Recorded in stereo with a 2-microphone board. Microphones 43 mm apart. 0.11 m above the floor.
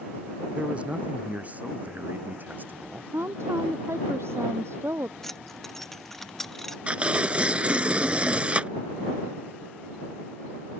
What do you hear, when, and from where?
0.5 s a man speaking: 25° right (ahead or behind); by 3.0 s 45° right (ahead or behind)
3.1 s a woman speaking: 75° right (ahead or behind)
5.2 s keys jangling: 10° left (ahead or behind)
6.9 s tearing paper: 30° right (ahead or behind)